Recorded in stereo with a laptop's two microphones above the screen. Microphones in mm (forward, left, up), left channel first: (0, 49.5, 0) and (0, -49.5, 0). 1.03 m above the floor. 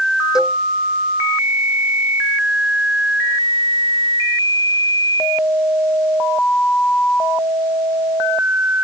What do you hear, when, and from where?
0.3 s a cowbell: 5° right (ahead or behind)